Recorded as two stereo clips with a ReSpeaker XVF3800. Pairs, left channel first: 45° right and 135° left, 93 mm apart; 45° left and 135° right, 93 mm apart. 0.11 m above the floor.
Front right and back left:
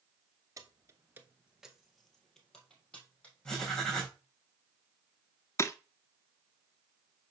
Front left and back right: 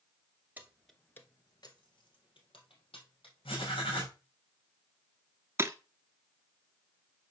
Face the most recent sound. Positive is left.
turn(degrees=-85)